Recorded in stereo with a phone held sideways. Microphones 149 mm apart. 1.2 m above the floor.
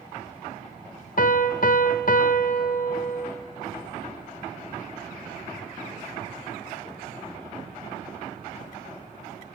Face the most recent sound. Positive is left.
turn(degrees=65)  # may be behind; listen again after turning